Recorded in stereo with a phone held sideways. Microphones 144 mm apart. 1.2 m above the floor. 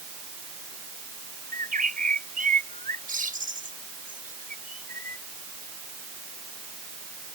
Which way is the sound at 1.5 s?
70° right (ahead or behind).